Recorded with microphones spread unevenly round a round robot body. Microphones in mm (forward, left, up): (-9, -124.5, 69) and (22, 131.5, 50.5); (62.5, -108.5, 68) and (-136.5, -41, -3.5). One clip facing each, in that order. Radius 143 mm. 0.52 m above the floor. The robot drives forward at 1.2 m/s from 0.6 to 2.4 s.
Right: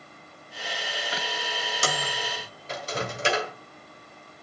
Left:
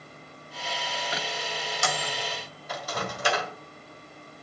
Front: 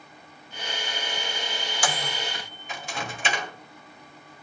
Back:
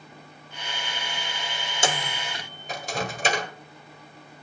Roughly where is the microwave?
Behind right.